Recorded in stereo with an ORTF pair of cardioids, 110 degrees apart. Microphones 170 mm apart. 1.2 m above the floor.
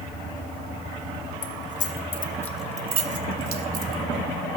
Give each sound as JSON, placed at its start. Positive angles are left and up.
{"t": 1.4, "sound": "keys jangling", "azimuth_deg": 60, "distance_m": 1.1}